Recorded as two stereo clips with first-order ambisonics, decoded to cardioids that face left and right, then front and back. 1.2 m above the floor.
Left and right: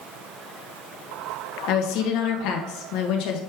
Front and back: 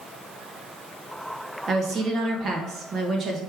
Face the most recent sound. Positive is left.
turn(degrees=120)